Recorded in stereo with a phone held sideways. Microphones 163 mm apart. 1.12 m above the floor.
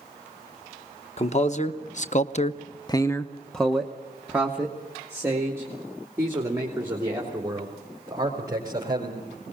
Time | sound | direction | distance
1.2 | a man speaking | 40° left (ahead or behind) | 1.2 m